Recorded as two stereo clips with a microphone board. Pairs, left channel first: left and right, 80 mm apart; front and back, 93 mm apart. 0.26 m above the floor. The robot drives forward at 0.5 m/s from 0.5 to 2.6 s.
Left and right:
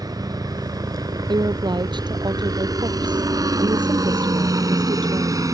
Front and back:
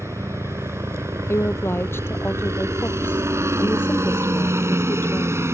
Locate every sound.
0.0 s a helicopter: 120° right; by 5.5 s 125° right
1.3 s a woman speaking: 65° right